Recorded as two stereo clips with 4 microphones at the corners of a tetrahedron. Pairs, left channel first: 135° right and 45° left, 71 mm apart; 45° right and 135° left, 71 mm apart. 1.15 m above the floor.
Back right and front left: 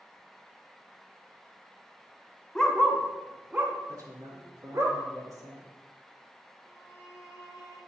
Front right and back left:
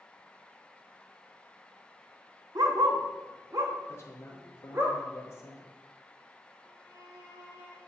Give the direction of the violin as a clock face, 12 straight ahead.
6 o'clock.